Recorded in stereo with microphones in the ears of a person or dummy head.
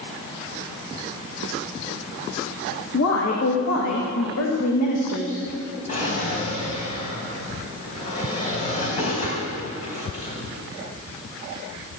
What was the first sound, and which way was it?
A woman speaking, 80° left.